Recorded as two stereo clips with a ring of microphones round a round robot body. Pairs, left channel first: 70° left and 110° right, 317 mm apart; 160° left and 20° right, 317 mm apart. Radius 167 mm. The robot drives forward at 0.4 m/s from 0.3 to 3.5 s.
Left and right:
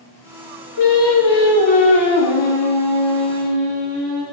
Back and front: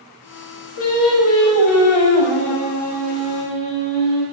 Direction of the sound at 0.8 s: 105° left.